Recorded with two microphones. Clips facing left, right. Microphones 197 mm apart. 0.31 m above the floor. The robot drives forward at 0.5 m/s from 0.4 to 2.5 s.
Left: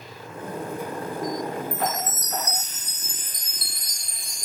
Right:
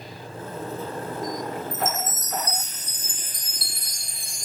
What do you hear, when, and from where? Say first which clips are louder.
1.7 s a chime: left 1 dB; 20° right (ahead or behind), 0.9 m; by 4.5 s 30° right (ahead or behind), 0.6 m